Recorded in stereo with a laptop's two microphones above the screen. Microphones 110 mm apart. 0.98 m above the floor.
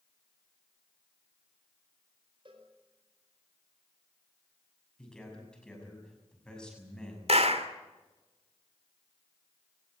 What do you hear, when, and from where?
2.5 s a cowbell: 50° right (ahead or behind), 4.5 m
5.0 s a man speaking: 5° left (ahead or behind), 6.5 m
7.3 s a clap: 70° right (ahead or behind), 2 m